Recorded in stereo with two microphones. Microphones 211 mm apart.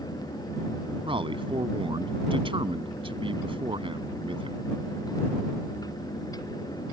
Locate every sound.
1.0 s a man speaking: 25° right (ahead or behind)